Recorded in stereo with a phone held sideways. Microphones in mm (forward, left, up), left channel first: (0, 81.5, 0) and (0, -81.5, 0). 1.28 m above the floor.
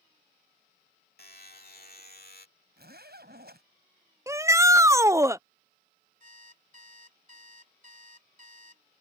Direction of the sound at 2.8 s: 75° right (ahead or behind).